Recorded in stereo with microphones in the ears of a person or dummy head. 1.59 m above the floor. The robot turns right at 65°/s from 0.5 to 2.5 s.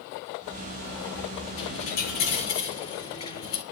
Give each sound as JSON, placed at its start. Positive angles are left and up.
{"t": 1.6, "sound": "a dropped coin", "azimuth_deg": 90, "distance_m": 4.0}